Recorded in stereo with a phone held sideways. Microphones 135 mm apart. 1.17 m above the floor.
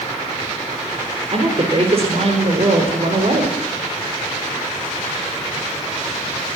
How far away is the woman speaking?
About 4.5 m.